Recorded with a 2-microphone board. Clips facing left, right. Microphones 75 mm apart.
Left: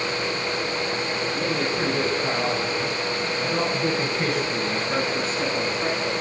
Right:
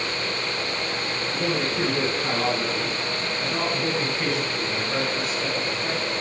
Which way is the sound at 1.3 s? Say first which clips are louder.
Right 2 dB; 15° right (ahead or behind).